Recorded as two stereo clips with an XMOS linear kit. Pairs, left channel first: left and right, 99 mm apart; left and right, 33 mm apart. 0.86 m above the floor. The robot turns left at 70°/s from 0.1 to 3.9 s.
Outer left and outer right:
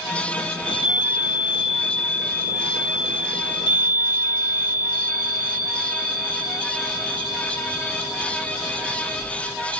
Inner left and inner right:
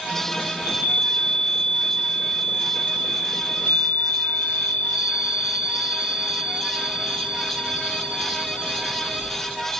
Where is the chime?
90° right, 3 m; by 9.4 s 35° left, 3 m.